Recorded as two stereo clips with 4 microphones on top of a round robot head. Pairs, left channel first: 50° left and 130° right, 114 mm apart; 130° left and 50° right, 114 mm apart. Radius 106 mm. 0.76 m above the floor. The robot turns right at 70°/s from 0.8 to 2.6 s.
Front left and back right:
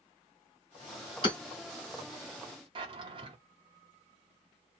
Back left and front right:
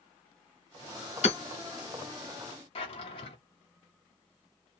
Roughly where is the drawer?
Behind.